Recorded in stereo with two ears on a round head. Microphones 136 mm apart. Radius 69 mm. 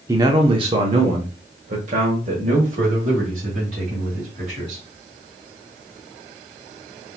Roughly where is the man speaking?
Right.